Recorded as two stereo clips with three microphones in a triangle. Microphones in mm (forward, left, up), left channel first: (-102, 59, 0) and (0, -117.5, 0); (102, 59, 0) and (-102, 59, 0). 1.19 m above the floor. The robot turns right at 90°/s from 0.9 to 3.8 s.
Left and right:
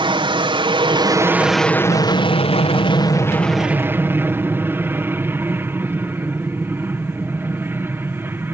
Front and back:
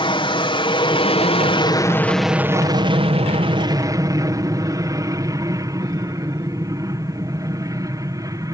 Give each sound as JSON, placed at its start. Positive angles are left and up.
{"t": 0.0, "sound": "an aircraft", "azimuth_deg": -30}